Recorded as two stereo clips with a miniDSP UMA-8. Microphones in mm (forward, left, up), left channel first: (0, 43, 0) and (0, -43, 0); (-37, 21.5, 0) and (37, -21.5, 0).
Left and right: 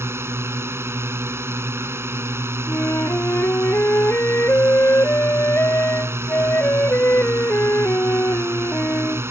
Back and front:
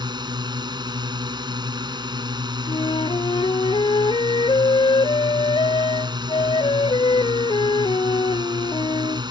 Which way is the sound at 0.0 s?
35° right.